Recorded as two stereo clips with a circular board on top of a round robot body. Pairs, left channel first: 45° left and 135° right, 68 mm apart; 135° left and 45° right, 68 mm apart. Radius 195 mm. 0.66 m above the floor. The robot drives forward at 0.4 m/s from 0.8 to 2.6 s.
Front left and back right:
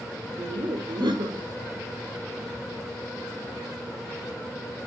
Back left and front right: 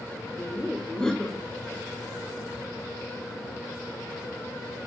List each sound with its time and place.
0.4 s laughter: 145° right, 2.5 m